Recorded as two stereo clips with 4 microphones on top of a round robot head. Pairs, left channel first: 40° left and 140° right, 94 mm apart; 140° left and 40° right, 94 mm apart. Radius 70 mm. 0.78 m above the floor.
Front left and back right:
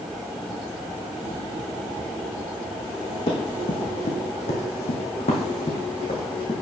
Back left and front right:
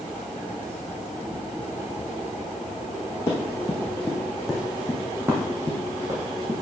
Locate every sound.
3.3 s running footsteps: 75° left, 1.9 m; by 6.5 s 10° left, 2.5 m